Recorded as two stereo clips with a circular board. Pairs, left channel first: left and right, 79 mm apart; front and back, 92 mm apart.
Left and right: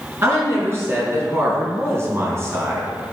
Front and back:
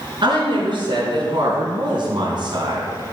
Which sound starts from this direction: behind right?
A woman speaking, at 0.2 s.